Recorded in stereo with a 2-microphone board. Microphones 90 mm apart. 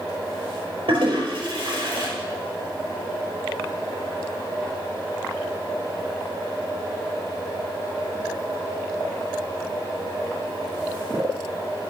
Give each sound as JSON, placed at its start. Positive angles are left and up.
{"t": 0.9, "sound": "a toilet flushing", "side_deg": -65, "distance_m": 5.0}